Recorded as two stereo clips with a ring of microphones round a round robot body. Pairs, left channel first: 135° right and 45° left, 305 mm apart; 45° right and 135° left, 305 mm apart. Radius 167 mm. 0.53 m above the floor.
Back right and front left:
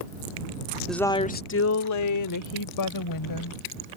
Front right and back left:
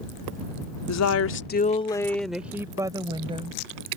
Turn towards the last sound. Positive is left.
turn(degrees=-155)